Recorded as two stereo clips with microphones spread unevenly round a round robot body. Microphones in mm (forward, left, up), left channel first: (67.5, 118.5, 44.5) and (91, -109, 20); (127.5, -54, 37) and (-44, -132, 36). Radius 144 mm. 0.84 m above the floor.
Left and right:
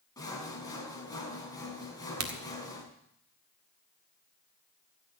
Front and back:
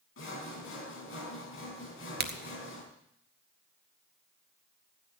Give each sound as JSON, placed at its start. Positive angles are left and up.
{"t": 0.2, "sound": "sawing", "azimuth_deg": 20, "distance_m": 4.0}
{"t": 2.2, "sound": "a crack", "azimuth_deg": -120, "distance_m": 1.6}